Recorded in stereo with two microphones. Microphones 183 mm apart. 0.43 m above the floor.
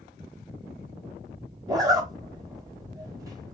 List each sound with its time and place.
1.7 s a zipper: 20° right (ahead or behind), 1.5 m